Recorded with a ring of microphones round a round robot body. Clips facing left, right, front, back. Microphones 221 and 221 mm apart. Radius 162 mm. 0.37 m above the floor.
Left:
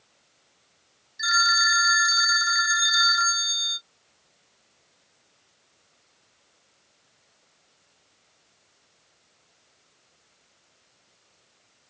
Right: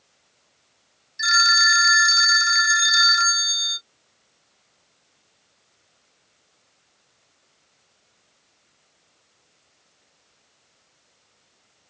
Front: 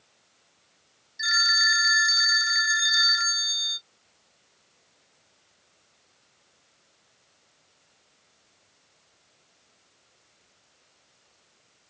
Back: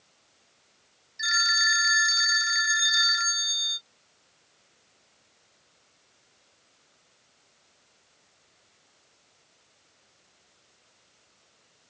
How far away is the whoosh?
I don't hear a whoosh.